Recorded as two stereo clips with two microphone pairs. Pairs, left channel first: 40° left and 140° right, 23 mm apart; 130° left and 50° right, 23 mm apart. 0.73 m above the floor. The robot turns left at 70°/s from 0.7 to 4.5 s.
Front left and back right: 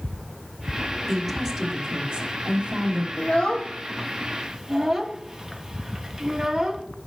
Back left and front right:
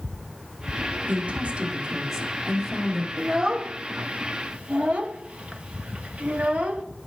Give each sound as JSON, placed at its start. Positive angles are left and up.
{"t": 1.1, "sound": "a woman speaking", "azimuth_deg": -55, "distance_m": 1.6}
{"t": 3.2, "sound": "a child speaking", "azimuth_deg": 15, "distance_m": 0.8}